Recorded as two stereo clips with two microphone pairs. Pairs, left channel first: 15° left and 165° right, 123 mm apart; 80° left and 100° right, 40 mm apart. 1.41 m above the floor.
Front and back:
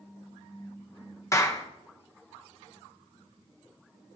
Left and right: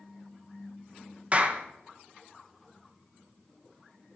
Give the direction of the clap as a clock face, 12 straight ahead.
2 o'clock.